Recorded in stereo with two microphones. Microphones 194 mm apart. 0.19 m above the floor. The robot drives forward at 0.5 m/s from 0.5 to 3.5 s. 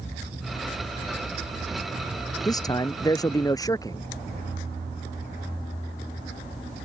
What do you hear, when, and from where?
2.5 s a man speaking: 20° left (ahead or behind)